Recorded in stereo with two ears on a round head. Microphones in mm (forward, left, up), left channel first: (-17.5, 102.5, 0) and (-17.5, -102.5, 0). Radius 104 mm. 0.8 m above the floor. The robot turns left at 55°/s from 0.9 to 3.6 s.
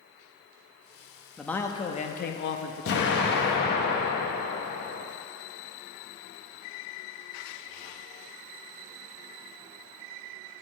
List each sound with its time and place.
1.4 s a man speaking: straight behind, 0.8 m; by 3.4 s 70° left, 0.8 m
2.9 s an explosion: 105° left, 1.1 m; by 5.0 s 65° left, 1.1 m